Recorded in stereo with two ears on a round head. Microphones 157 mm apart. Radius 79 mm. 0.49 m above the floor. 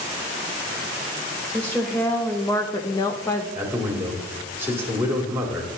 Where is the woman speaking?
10° left (ahead or behind), 1.3 m; by 3.5 s 15° left (ahead or behind), 1.1 m.